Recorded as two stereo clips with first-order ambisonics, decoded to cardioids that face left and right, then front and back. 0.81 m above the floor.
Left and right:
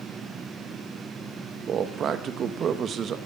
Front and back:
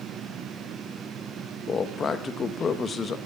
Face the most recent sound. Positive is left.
turn(degrees=-55)